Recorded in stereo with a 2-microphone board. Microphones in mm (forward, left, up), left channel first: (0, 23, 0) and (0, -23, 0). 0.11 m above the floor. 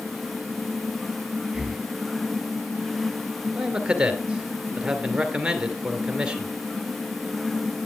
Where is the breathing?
5° right (ahead or behind), 1.2 m.